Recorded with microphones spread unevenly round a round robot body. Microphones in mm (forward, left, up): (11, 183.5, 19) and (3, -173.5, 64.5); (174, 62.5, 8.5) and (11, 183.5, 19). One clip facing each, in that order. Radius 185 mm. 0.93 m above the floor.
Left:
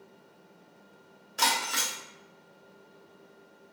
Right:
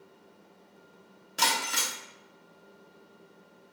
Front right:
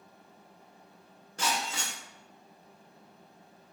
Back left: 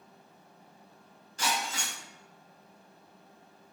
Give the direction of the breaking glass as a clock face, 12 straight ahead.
3 o'clock.